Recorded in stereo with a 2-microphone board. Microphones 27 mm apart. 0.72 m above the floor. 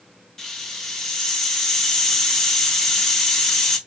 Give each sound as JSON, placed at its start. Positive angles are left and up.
{"t": 0.4, "sound": "a hiss", "side_deg": 20, "distance_m": 1.0}